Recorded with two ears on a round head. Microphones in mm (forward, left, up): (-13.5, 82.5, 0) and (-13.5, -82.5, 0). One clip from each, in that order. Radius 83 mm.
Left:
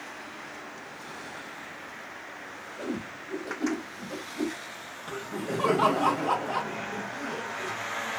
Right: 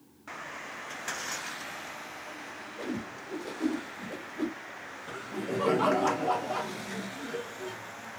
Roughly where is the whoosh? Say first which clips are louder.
Left 2 dB; centre.